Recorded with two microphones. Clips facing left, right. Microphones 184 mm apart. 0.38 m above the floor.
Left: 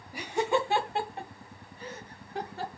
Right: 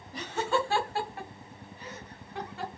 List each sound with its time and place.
0.1 s laughter: 10° left (ahead or behind), 1.5 m; by 2.7 s 35° left (ahead or behind), 3 m